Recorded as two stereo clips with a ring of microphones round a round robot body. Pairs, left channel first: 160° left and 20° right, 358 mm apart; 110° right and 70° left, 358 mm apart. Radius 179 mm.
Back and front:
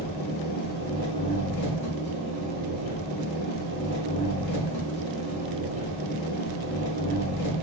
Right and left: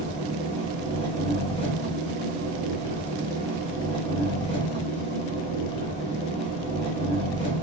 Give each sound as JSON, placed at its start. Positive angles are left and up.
{"t": 0.0, "sound": "an engine running", "azimuth_deg": 170, "distance_m": 1.1}